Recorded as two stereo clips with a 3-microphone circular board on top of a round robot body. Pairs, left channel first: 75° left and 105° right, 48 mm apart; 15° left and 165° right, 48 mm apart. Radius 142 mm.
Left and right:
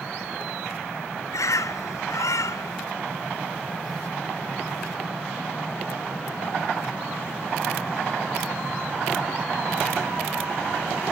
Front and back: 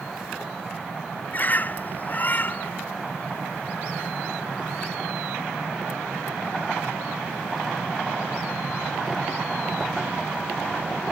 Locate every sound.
1.3 s a bird: 70° left